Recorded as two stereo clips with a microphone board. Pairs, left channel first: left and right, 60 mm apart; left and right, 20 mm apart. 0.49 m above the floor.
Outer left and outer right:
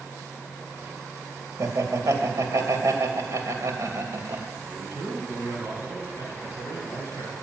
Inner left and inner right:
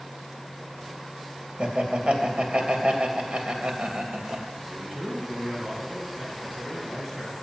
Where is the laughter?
60° right (ahead or behind), 2.5 m.